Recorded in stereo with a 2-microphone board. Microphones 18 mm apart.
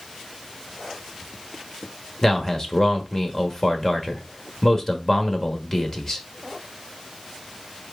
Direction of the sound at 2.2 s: 30° left (ahead or behind).